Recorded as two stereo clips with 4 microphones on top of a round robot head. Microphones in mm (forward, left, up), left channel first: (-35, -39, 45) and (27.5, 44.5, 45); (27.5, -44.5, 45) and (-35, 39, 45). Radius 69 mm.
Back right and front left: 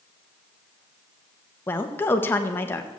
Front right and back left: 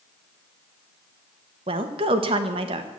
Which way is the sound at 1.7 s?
160° left.